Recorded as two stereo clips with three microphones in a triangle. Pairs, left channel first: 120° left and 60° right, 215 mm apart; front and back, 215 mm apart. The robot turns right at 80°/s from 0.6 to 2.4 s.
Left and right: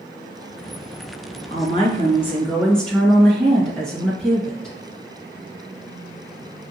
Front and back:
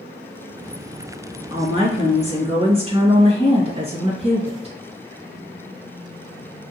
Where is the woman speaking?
130° left, 1.7 m; by 4.8 s 160° right, 1.7 m.